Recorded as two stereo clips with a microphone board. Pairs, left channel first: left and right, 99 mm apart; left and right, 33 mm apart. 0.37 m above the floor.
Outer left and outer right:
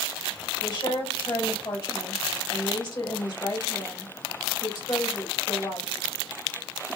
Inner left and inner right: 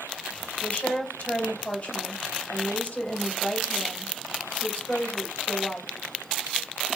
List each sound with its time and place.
0.6 s a woman speaking: 50° left (ahead or behind), 2 m